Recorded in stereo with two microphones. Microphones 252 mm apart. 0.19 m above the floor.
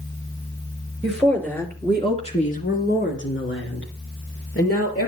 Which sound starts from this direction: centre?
A woman speaking, at 1.0 s.